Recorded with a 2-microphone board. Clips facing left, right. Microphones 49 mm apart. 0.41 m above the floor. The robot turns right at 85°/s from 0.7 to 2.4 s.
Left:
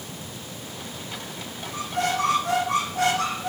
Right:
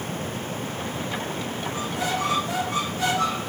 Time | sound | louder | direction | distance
1.7 | a squeak | left 3 dB | 45° left | 9.5 m